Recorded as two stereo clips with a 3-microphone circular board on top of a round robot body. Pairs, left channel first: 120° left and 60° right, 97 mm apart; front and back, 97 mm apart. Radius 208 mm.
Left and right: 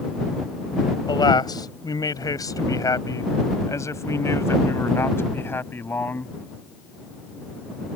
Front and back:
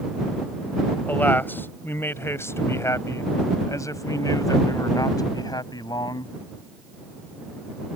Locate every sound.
1.1 s a man speaking: 75° left; by 6.3 s 50° left